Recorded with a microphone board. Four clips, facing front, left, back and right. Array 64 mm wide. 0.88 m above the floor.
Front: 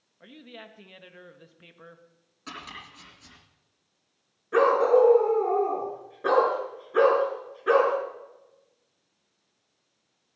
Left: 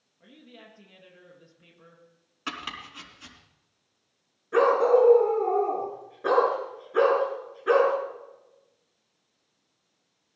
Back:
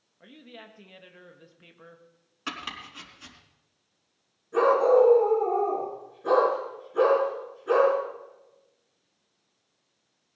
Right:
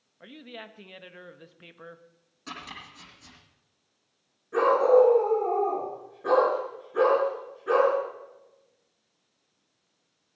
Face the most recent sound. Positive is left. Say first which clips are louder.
# even, even
turn(degrees=30)